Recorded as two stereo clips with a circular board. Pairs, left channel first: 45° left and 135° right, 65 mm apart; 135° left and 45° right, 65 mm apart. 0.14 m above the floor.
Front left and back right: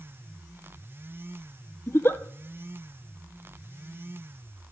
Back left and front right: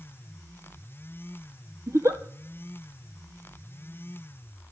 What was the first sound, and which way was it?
A giggle, 5° right.